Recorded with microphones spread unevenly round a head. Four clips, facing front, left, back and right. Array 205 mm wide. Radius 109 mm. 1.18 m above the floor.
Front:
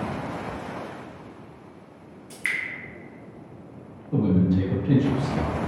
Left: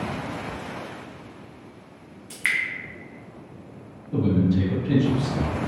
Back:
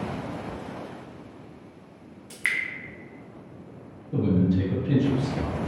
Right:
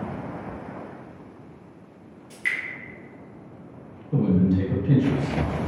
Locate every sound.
2.3 s dripping: 140° left, 0.5 m
4.1 s a man speaking: straight ahead, 1.8 m